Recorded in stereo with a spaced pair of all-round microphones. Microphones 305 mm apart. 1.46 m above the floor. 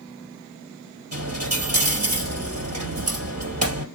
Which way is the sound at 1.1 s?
55° right (ahead or behind).